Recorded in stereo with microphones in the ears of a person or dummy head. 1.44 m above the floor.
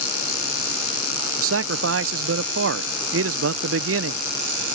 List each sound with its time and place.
1.4 s a man speaking: 65° right (ahead or behind)